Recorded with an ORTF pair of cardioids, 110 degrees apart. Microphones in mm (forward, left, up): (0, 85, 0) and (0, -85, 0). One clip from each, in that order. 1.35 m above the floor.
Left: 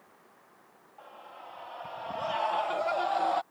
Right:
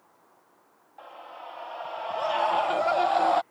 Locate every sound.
1.0 s a scream: 35° right